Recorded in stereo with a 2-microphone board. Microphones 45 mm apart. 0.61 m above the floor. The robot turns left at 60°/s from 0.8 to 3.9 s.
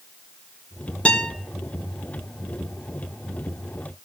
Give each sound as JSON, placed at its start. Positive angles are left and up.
{"t": 1.1, "sound": "a guitar", "side_deg": 25, "distance_m": 1.6}